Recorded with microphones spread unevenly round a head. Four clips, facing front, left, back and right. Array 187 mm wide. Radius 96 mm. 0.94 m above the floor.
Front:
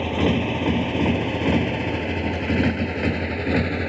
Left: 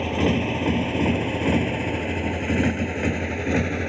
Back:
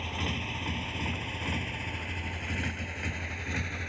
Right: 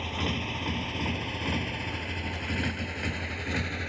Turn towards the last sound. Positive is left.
turn(degrees=35)